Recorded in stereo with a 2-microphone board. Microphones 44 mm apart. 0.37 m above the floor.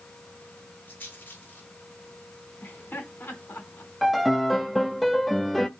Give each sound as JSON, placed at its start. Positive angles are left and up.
{"t": 0.9, "sound": "a rattle", "side_deg": 45, "distance_m": 7.0}
{"t": 2.6, "sound": "laughter", "side_deg": 50, "distance_m": 4.0}
{"t": 4.0, "sound": "a piano", "side_deg": 0, "distance_m": 0.8}